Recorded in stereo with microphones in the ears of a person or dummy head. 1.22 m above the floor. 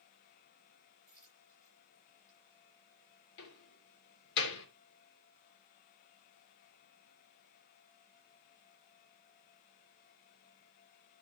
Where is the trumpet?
No trumpet in this recording.